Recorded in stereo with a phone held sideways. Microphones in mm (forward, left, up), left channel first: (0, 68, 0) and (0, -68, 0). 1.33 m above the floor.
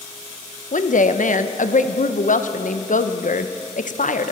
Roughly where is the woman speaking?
Left.